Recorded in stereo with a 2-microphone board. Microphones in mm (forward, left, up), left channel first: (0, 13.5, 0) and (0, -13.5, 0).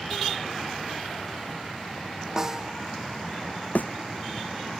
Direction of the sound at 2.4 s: 20° right (ahead or behind).